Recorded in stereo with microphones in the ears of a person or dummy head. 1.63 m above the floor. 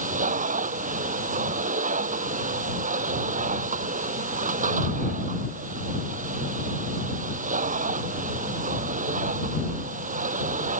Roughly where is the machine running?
Right.